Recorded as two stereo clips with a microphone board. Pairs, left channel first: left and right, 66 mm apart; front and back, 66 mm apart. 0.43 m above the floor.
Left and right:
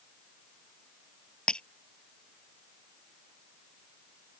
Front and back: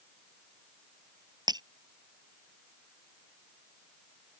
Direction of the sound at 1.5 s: 165° left.